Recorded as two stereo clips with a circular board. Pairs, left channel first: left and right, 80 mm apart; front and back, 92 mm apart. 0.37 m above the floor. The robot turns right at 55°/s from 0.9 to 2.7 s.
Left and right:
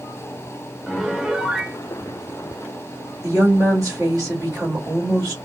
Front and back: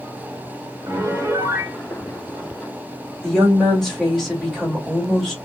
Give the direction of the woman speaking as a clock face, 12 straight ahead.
3 o'clock.